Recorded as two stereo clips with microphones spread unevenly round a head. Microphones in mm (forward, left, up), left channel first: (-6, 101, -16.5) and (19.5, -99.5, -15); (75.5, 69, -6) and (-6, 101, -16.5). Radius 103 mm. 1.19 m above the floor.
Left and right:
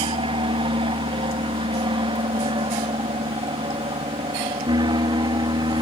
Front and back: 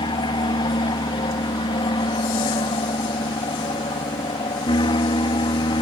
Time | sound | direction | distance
0.0 | an aircraft | 20° right | ?